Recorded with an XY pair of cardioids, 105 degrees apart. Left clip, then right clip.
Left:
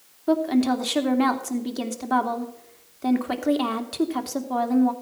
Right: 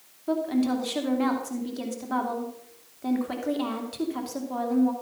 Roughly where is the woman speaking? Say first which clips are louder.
Left 5 dB; ahead left.